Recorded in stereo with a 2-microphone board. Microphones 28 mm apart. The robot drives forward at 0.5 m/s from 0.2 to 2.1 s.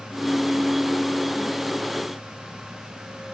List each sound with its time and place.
Only background noise.